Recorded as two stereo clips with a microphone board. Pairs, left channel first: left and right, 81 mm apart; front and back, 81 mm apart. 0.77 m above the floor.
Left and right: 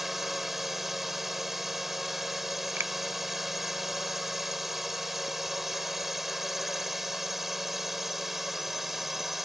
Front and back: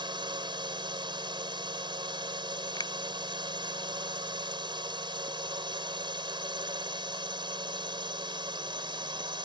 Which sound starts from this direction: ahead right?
A finger snap, at 2.8 s.